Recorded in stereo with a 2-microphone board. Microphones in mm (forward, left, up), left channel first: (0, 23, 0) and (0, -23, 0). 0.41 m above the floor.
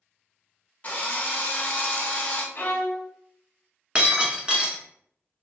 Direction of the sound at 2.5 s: 55° left (ahead or behind).